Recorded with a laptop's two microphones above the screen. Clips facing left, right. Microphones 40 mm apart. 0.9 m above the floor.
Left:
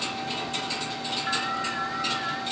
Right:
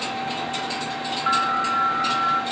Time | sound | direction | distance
0.0 | a fan | 40° right (ahead or behind) | 1.0 m
1.3 | an alarm | 80° right | 7.5 m